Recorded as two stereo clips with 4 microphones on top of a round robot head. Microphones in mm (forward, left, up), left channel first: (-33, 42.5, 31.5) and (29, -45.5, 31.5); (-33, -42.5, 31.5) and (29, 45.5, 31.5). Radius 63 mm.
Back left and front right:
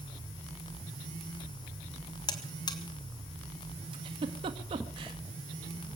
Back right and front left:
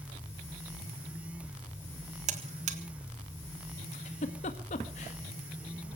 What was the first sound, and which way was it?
A buzzer, 70° left.